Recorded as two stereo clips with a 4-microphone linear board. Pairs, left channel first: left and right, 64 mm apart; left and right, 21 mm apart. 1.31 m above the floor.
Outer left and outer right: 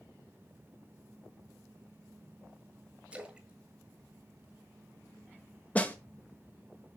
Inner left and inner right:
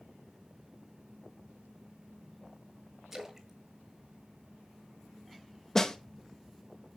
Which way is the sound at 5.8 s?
20° left (ahead or behind).